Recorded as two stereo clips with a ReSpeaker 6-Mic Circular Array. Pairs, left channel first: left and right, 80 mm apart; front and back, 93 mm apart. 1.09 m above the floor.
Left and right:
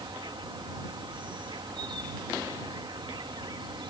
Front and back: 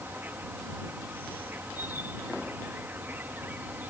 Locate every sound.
0.0 s an insect: 110° right